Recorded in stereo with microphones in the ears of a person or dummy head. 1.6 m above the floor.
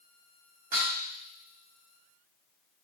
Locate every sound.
0.7 s dishes clattering: 45° right (ahead or behind), 1.3 m